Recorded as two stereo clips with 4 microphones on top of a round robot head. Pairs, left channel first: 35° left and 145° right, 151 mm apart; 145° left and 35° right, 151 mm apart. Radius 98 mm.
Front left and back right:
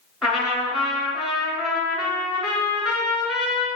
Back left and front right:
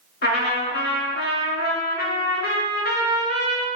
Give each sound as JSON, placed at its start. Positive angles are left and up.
{"t": 0.2, "sound": "a trumpet", "azimuth_deg": 125, "distance_m": 1.9}